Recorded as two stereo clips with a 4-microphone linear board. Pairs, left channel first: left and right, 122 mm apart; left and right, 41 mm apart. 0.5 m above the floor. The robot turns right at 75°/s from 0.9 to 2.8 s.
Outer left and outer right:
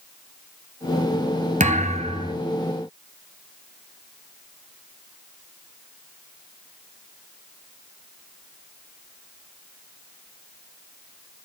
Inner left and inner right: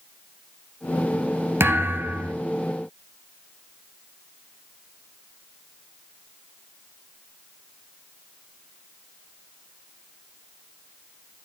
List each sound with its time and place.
1.6 s a thud: 90° right, 1.7 m; by 2.4 s 35° right, 1.7 m